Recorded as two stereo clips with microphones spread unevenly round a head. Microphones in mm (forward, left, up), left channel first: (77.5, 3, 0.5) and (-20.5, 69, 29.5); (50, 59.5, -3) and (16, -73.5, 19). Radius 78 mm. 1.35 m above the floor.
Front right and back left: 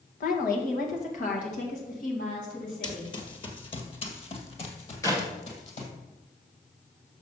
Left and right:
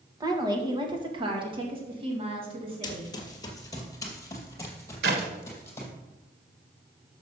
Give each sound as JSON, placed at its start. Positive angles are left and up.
{"t": 0.2, "sound": "a woman speaking", "azimuth_deg": -40, "distance_m": 1.3}
{"t": 2.8, "sound": "running footsteps", "azimuth_deg": 20, "distance_m": 1.6}
{"t": 5.0, "sound": "a clap", "azimuth_deg": -105, "distance_m": 1.5}